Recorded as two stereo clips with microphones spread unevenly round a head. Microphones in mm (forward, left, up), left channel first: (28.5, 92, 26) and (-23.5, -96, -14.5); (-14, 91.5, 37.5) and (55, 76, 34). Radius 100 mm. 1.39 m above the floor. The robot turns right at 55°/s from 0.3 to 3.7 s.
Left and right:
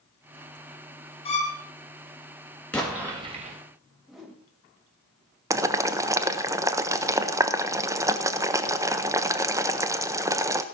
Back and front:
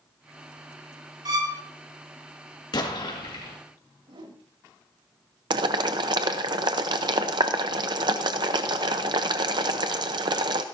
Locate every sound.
1.2 s a violin: 10° left, 1.8 m; by 1.6 s 30° left, 1.8 m
2.7 s an explosion: 155° left, 2 m; by 3.6 s 155° right, 2 m
4.1 s a whoosh: 20° right, 1.6 m
5.5 s boiling: 25° right, 0.7 m